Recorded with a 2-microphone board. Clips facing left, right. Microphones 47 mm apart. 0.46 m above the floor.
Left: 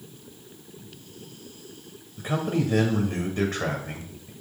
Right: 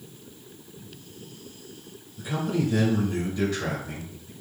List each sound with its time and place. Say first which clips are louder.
2.2 s a man speaking: left 1 dB; 55° left (ahead or behind), 2.5 m